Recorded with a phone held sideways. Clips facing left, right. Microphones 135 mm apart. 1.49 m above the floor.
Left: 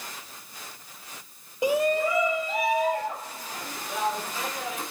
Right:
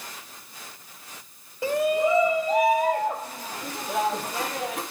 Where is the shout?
20° left (ahead or behind), 0.6 m; by 4.8 s 65° right (ahead or behind), 3.5 m.